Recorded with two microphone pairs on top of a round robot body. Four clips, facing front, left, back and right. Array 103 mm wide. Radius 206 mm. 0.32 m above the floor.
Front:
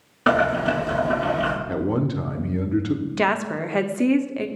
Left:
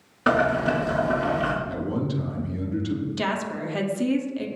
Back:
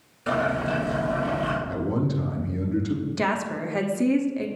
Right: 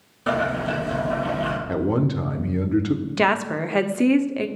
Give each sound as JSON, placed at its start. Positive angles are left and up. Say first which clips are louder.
{"t": 0.3, "sound": "boiling", "louder": "left 2 dB, front 5 dB", "azimuth_deg": 30, "distance_m": 5.5}
{"t": 1.7, "sound": "a man speaking", "louder": "right 5 dB, front 3 dB", "azimuth_deg": -55, "distance_m": 2.0}
{"t": 3.2, "sound": "a woman speaking", "louder": "right 6 dB, front 5 dB", "azimuth_deg": -60, "distance_m": 1.6}